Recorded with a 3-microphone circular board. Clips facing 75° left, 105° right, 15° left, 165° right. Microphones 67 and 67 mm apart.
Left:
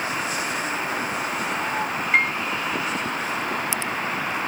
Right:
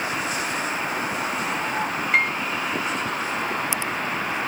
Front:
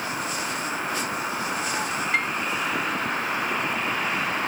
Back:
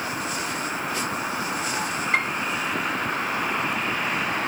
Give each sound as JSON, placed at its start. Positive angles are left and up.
{"t": 2.1, "sound": "a piano", "azimuth_deg": 170, "distance_m": 1.7}